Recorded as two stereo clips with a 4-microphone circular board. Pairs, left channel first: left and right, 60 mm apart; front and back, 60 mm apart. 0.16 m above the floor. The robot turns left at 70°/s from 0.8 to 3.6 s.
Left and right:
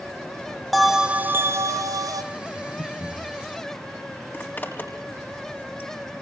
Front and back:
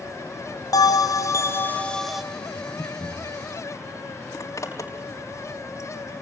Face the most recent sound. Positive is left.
turn(degrees=35)